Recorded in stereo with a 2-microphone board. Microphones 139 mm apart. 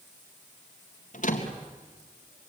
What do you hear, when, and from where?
1.1 s a door slam: 65° left (ahead or behind), 3 m